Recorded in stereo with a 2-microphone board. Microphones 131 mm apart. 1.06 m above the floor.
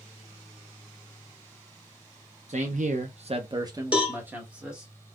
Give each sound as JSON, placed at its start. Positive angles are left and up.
{"t": 2.5, "sound": "a man speaking", "side_deg": -65, "distance_m": 0.7}
{"t": 3.9, "sound": "a cowbell", "side_deg": -10, "distance_m": 1.1}